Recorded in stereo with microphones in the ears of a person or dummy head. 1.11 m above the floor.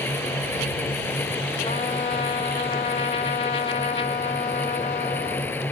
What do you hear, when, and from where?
0.0 s a fan: 15° left (ahead or behind)
1.6 s a trumpet: 30° left (ahead or behind)